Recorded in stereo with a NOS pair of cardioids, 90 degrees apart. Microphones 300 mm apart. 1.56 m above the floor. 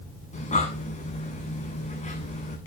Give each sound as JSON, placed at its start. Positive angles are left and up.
{"t": 0.3, "sound": "breathing", "azimuth_deg": 25, "distance_m": 7.0}